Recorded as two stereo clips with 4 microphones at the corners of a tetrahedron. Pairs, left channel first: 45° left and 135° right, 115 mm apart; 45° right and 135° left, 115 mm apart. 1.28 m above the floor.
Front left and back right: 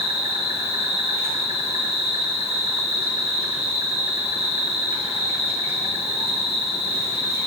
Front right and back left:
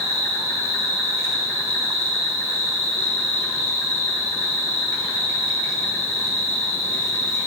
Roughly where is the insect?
Right.